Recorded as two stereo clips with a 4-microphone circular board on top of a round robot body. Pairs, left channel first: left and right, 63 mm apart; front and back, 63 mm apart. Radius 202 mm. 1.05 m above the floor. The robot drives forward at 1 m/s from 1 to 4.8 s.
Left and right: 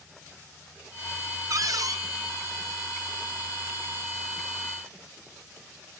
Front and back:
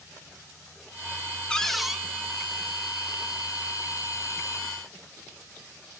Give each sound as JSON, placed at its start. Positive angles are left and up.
{"t": 1.5, "sound": "a cupboard door", "azimuth_deg": -75, "distance_m": 1.3}